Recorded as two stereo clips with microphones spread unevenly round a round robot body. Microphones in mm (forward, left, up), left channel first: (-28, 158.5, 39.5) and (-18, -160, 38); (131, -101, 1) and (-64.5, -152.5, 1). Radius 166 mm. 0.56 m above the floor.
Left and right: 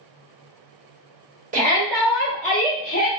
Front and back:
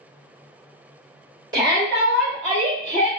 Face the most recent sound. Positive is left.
turn(degrees=125)